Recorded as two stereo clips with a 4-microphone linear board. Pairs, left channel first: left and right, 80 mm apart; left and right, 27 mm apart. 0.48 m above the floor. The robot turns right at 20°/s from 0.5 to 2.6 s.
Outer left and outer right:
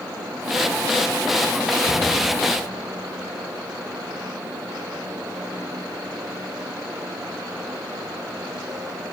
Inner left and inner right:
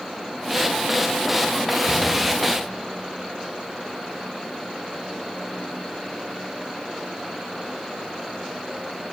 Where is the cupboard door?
55° left (ahead or behind), 1.4 m.